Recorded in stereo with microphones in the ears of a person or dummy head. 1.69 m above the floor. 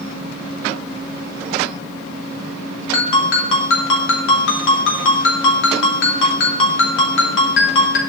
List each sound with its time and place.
2.9 s a ringtone: 70° left (ahead or behind), 3.5 m